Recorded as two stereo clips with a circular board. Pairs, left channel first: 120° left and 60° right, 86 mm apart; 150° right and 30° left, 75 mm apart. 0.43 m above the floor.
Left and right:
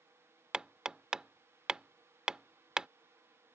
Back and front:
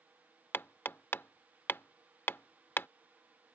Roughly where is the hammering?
Behind right.